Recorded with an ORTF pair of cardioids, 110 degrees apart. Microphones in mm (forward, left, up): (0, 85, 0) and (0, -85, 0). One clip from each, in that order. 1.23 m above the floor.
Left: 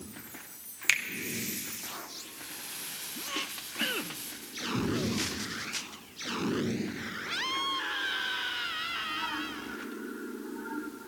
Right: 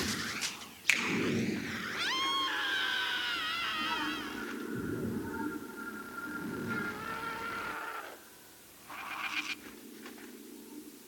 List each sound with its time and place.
0.9 s a finger snap: 20° left, 0.9 m